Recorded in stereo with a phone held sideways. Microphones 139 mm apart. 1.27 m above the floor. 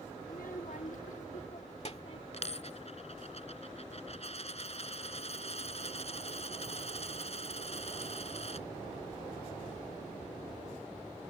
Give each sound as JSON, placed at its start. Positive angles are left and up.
{"t": 0.2, "sound": "a child speaking", "side_deg": 65}
{"t": 2.3, "sound": "a dropped coin", "side_deg": 50}